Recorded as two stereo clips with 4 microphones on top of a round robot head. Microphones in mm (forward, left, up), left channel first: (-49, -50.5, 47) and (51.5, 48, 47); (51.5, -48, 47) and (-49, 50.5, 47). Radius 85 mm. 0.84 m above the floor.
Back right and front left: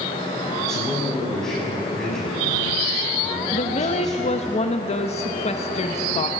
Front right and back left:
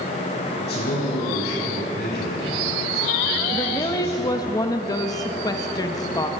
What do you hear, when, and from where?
0.6 s a man speaking: 50° right, 7 m
3.5 s a woman speaking: 105° right, 0.9 m